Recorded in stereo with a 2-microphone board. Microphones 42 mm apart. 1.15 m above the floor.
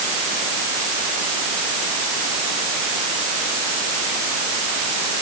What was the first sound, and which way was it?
Only background noise.